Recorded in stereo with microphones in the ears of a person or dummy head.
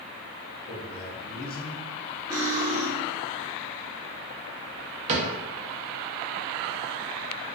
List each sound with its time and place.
0.7 s a man speaking: 60° left (ahead or behind), 1.9 m; by 1.9 s centre (ahead or behind), 1.0 m
2.3 s cutlery clinking: 20° right (ahead or behind), 0.9 m
5.1 s a cupboard door: 30° right (ahead or behind), 0.5 m